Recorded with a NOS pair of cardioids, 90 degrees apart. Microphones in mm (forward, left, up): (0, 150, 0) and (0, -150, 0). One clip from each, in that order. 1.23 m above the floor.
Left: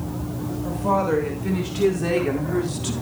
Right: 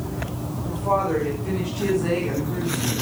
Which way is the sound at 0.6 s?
50° left.